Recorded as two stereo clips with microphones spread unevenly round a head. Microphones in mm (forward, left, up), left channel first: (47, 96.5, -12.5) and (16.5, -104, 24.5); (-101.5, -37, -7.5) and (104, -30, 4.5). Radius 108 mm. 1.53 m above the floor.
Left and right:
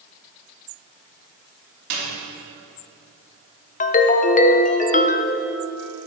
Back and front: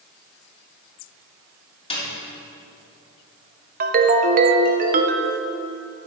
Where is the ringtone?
30° left, 0.6 m.